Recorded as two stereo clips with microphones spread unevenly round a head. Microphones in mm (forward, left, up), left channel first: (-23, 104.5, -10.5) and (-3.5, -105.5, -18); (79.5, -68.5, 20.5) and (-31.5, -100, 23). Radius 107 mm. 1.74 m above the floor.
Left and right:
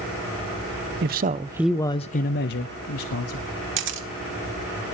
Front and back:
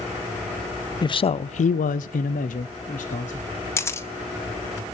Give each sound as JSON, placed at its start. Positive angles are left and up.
{"t": 1.0, "sound": "a man speaking", "azimuth_deg": -40, "distance_m": 0.8}
{"t": 3.8, "sound": "a camera shutter", "azimuth_deg": -50, "distance_m": 1.9}